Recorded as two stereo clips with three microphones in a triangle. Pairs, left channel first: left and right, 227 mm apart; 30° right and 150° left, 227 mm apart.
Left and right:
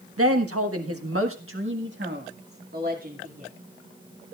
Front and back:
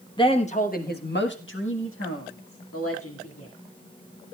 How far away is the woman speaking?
About 1.4 m.